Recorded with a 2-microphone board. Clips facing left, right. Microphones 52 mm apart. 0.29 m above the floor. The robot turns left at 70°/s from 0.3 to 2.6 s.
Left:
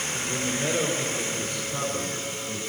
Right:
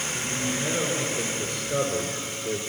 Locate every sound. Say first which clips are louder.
0.1 s a man speaking: even; 20° left, 5.5 m; by 2.6 s 140° right, 5.5 m